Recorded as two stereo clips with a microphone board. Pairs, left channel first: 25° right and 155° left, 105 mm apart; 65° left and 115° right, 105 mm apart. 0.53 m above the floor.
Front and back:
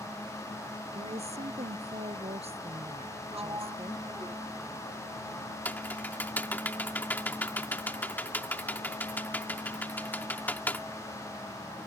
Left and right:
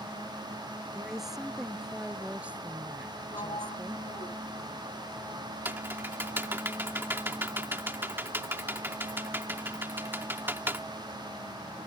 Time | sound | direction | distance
0.9 | a woman speaking | 160° left | ?
3.3 | a sliding door | 100° left | ?
5.7 | typing on a keyboard | 75° right | ?